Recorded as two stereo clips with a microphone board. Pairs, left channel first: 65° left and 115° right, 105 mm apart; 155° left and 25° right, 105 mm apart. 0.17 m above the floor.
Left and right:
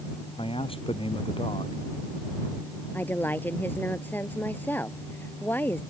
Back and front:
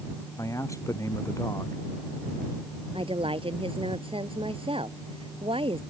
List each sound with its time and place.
0.4 s a man speaking: 95° left
2.9 s a woman speaking: 5° right